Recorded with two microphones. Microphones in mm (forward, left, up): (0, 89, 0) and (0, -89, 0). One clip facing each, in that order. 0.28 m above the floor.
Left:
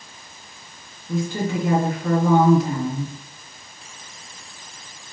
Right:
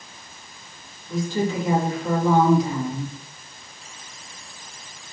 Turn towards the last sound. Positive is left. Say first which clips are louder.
# even
turn(degrees=60)  # may be behind; listen again after turning